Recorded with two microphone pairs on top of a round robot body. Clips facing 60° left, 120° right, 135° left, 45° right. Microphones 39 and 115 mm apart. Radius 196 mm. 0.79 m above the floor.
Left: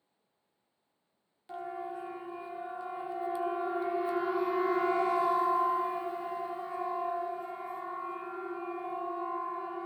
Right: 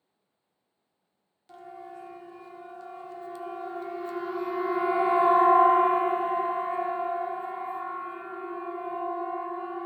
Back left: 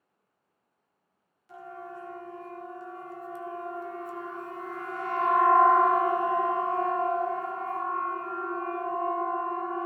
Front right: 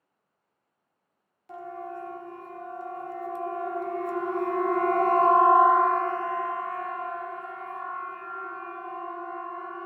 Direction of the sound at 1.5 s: 10° right.